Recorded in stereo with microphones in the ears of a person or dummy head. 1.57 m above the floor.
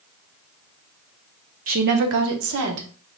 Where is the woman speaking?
40° right (ahead or behind), 0.7 m; by 2.9 s 75° right (ahead or behind), 1.4 m.